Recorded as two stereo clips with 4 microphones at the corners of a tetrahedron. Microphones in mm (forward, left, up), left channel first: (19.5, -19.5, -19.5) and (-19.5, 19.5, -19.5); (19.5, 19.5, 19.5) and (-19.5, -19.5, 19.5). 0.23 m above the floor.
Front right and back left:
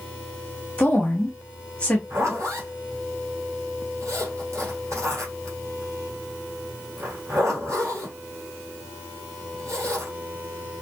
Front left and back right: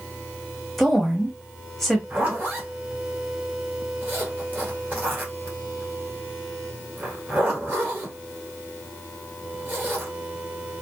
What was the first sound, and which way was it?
A woman speaking, 30° right.